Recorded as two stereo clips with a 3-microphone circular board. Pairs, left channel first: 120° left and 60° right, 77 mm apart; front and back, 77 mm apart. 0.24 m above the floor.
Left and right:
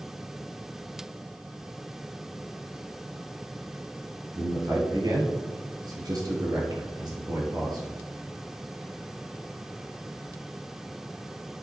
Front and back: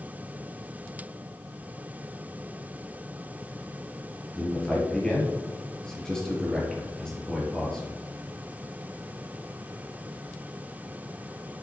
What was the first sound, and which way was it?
A man speaking, 80° right.